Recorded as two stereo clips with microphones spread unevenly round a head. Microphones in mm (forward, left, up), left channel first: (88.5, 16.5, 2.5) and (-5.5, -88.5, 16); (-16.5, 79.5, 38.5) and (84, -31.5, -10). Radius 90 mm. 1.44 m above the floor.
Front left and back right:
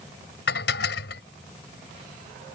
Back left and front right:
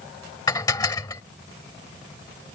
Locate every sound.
0.5 s dishes clattering: 70° left